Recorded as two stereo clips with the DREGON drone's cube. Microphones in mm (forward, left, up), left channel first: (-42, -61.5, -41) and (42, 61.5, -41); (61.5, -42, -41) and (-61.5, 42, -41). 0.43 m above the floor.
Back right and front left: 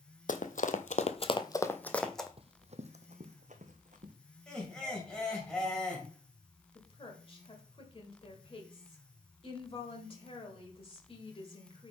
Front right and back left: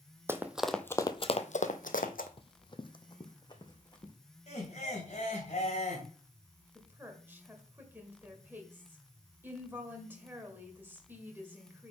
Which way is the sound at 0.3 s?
140° right.